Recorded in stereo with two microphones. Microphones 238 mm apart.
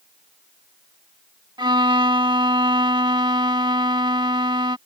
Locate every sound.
1.6 s a violin: 20° right (ahead or behind)